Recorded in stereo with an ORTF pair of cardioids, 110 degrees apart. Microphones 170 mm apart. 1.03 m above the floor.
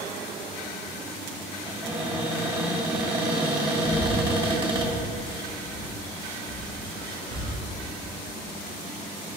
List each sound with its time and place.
1.6 s a cupboard door: 30° right, 2.5 m
3.9 s breathing: 25° right, 1.5 m